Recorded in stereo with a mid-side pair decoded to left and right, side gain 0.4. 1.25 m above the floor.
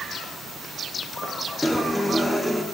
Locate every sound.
1.6 s a guitar: 5° left, 3.5 m